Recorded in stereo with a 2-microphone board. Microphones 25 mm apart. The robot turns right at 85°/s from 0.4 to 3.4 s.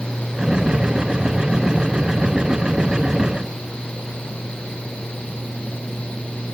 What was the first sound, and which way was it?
Only background noise.